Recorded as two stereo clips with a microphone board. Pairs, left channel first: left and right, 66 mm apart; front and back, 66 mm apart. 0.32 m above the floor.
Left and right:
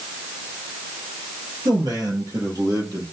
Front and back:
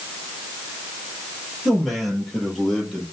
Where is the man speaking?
90° right, 8 m; by 3.0 s 85° right, 9.5 m.